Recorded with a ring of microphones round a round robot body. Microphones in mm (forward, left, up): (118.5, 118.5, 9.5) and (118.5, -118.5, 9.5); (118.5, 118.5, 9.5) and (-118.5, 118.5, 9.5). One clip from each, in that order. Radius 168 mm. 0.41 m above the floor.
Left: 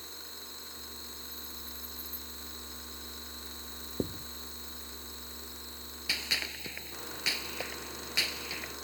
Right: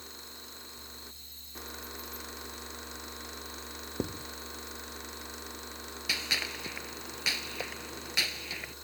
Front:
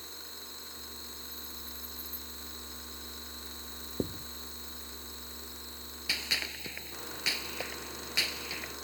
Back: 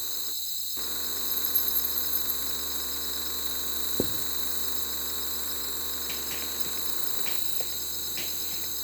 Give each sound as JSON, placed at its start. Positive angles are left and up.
{"t": 0.0, "sound": "an insect", "azimuth_deg": 175}
{"t": 4.0, "sound": "writing", "azimuth_deg": -165}
{"t": 6.1, "sound": "a gunshot", "azimuth_deg": -15}